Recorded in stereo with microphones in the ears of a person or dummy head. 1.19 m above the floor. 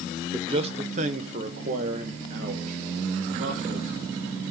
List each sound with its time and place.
0.3 s a man speaking: 20° right (ahead or behind), 0.6 m; by 4.3 s 45° right (ahead or behind), 3.5 m